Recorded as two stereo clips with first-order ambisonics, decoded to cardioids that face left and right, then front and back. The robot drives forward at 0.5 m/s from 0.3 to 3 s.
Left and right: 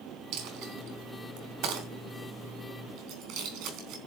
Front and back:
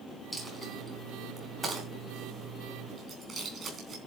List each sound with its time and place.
0.3 s a dropped coin: 95° right, 3.5 m; by 4.0 s 120° right, 4 m